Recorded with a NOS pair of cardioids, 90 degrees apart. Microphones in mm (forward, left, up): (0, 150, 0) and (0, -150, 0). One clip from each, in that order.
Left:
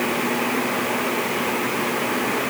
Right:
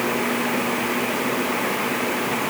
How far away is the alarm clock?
I don't hear an alarm clock.